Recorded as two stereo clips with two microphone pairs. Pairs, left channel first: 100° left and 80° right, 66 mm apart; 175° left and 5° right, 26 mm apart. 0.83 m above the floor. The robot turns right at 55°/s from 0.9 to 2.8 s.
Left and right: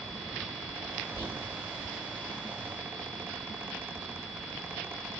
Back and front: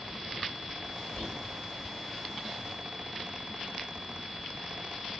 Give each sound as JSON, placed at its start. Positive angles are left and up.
{"t": 1.2, "sound": "whispering", "azimuth_deg": 155, "distance_m": 5.5}